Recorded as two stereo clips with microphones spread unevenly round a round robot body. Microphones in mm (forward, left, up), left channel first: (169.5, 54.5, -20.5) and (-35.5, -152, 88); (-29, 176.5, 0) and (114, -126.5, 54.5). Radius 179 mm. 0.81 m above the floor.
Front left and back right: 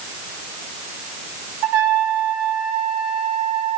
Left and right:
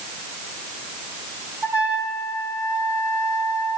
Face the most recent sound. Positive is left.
turn(degrees=-150)